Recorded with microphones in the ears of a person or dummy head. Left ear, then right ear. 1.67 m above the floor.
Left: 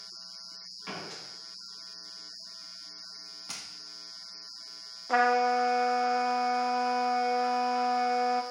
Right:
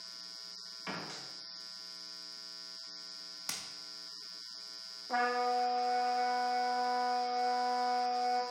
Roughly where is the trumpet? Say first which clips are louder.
Left 7 dB; left.